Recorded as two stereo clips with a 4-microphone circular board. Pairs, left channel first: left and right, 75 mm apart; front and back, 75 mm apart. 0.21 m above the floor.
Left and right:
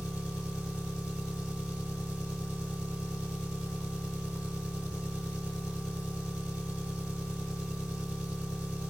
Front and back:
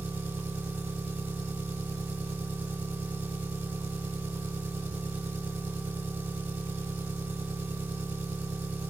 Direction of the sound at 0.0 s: 145° right.